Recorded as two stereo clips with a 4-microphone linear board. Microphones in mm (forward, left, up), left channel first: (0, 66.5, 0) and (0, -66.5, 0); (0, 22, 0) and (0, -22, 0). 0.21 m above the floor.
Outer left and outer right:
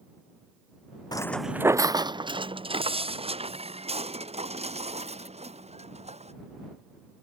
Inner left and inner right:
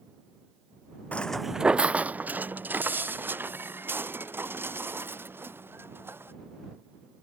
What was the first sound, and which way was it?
Footsteps, 35° left (ahead or behind).